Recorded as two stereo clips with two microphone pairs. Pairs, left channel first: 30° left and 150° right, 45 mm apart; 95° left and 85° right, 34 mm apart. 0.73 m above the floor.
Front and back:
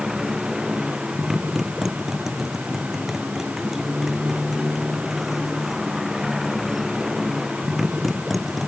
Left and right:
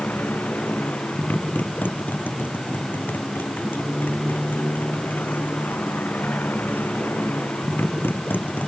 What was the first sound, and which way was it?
A motorcycle, 125° left.